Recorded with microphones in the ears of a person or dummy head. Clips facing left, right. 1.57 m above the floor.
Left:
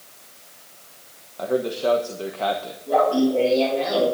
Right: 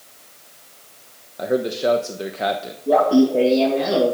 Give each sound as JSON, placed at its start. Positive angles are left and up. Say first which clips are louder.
{"t": 1.4, "sound": "a man speaking", "louder": "right 2 dB", "side_deg": -30, "distance_m": 1.2}
{"t": 2.9, "sound": "laughter", "louder": "right 4 dB", "side_deg": -60, "distance_m": 2.0}